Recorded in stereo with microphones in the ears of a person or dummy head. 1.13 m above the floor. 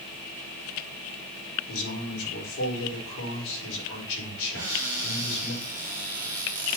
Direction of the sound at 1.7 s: 70° left (ahead or behind).